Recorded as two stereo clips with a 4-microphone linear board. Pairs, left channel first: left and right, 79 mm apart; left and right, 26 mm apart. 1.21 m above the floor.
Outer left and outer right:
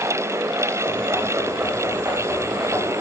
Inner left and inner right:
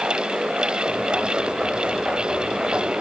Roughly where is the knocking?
Right.